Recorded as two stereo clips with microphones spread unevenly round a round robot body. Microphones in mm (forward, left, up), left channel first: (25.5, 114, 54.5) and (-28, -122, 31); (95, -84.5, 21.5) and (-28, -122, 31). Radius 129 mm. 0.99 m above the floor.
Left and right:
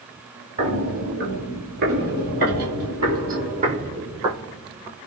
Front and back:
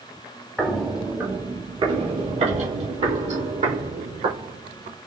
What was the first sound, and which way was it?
Footsteps, 65° right.